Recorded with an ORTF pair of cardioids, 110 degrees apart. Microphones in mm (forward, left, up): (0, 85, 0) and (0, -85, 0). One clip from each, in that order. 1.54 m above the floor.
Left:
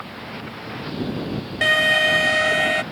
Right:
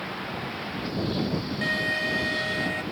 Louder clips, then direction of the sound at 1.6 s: Left 11 dB; 60° left.